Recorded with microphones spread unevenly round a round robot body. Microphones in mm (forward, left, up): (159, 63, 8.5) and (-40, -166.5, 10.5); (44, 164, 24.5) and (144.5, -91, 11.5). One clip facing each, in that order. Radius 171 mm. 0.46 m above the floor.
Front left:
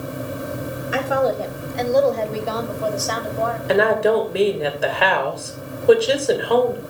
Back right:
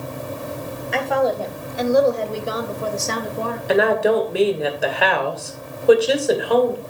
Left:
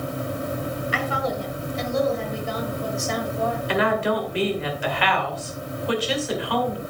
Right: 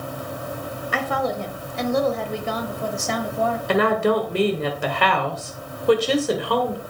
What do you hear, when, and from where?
0.9 s a woman speaking: 35° right, 1.9 m; by 3.6 s 80° right, 1.8 m
3.7 s a woman speaking: 45° right, 2.5 m